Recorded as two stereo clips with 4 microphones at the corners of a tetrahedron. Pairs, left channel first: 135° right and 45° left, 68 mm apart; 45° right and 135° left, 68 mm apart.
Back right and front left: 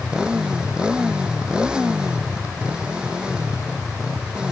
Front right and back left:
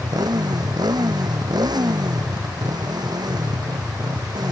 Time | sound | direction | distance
0.0 | a motorcycle | 125° left | ?